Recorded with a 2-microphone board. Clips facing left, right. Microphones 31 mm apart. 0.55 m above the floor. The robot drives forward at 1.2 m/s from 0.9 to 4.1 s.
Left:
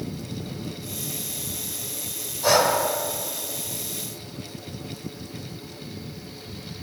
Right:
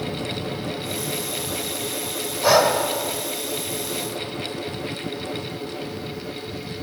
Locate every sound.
2.4 s breathing: 15° right (ahead or behind), 0.7 m; by 2.7 s 10° right (ahead or behind), 1.0 m